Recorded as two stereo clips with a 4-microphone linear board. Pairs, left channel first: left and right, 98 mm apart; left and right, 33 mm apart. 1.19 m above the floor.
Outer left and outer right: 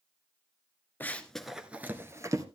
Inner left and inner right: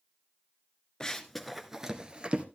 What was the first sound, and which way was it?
Running footsteps, 20° left (ahead or behind).